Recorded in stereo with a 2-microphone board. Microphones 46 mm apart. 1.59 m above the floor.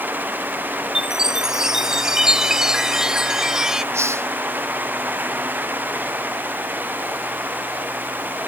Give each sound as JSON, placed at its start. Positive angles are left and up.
{"t": 0.9, "sound": "a chime", "side_deg": -10}
{"t": 3.9, "sound": "a hiss", "side_deg": -75}